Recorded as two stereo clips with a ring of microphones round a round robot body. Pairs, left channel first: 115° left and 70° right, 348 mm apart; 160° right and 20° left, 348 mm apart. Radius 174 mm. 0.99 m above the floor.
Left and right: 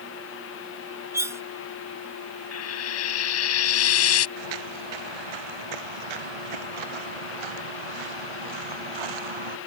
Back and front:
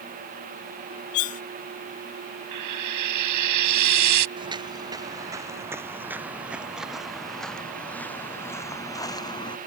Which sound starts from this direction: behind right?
Cutlery clinking, at 1.1 s.